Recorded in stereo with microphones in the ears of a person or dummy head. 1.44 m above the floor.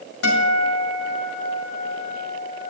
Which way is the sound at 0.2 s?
65° left (ahead or behind).